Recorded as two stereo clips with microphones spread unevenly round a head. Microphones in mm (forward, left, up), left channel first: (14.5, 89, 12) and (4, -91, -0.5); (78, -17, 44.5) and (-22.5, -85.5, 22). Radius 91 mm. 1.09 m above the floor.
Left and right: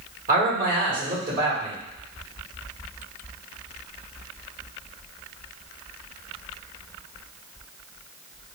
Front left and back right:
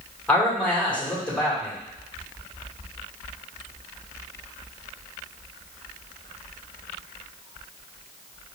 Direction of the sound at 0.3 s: 50° right.